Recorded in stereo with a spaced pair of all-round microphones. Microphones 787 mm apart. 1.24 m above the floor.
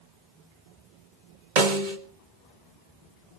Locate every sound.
1.6 s a snare drum: 70° right (ahead or behind), 1.9 m